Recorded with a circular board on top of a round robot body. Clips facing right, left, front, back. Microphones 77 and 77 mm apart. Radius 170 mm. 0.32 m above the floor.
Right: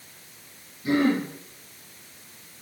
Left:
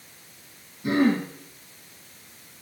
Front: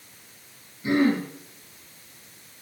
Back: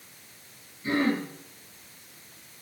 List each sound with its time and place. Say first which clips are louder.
0.8 s throat clearing: left 1 dB, front 4 dB; 65° left, 3.5 m